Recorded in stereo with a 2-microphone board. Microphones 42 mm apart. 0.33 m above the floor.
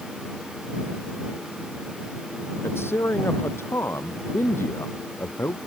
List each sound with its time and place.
2.6 s a man speaking: 65° left (ahead or behind)